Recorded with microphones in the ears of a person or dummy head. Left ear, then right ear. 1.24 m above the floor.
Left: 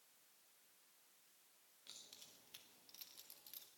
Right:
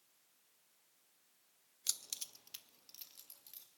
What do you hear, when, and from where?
1.9 s keys jangling: 75° right (ahead or behind), 0.6 m; by 3.7 s centre (ahead or behind), 1.9 m